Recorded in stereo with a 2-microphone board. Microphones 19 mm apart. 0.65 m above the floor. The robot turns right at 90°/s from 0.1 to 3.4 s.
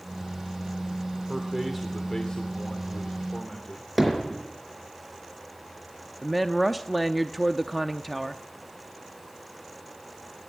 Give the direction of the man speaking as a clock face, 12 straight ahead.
2 o'clock.